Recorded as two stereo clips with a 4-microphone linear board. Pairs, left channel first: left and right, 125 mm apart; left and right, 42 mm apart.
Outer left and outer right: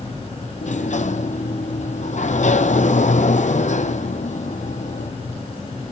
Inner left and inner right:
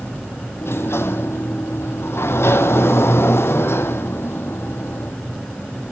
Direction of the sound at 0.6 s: 75° left (ahead or behind).